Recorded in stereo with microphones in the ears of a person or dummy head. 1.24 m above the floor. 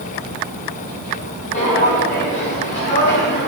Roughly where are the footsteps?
Left.